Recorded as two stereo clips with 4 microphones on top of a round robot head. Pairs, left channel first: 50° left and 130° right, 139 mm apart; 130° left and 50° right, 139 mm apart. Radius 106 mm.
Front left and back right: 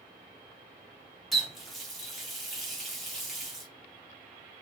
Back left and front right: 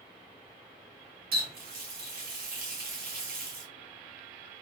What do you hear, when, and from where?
1.3 s a running tap: 40° right, 1.2 m